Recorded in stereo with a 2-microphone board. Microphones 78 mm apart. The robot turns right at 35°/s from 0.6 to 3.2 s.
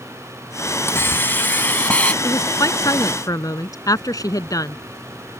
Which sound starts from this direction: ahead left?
A woman speaking, at 2.2 s.